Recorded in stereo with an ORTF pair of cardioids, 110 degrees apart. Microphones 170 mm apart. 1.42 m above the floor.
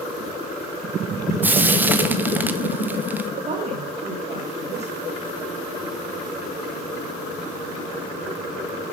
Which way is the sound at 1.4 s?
10° right.